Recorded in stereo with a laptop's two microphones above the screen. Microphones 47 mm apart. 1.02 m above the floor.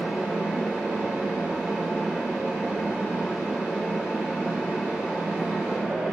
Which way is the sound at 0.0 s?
15° right (ahead or behind).